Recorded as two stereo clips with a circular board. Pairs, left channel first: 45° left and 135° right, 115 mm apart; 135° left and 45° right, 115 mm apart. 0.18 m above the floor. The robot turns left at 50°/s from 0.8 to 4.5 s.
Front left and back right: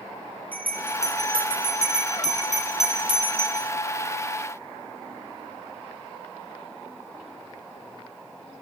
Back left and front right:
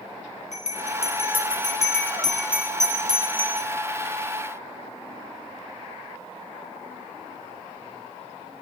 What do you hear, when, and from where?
0.5 s a bell: 120° left, 3 m; by 3.7 s 25° right, 3 m